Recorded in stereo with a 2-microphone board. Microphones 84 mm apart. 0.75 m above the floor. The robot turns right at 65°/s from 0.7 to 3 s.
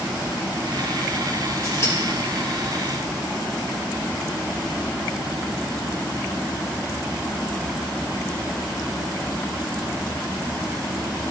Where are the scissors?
45° left (ahead or behind), 4.5 m; by 1.9 s 25° left (ahead or behind), 4.5 m.